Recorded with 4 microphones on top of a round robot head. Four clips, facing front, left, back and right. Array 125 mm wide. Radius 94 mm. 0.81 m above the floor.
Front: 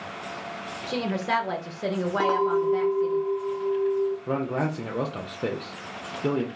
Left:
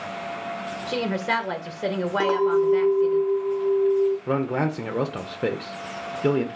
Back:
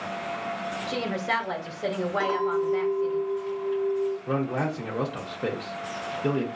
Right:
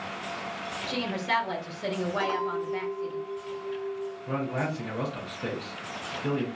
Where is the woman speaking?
75° left, 0.7 m.